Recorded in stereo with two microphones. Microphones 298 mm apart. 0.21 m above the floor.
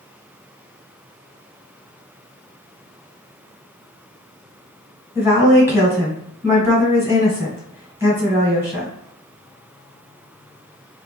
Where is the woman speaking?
10° right (ahead or behind), 1.2 m.